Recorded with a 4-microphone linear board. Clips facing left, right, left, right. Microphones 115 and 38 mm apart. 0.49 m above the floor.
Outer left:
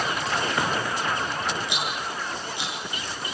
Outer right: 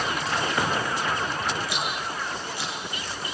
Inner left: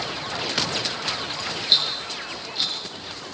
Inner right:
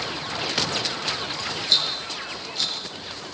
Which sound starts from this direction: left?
A rattle, at 1.7 s.